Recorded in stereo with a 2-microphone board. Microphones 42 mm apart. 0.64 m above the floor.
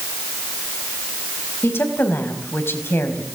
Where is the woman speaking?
80° left, 4 m.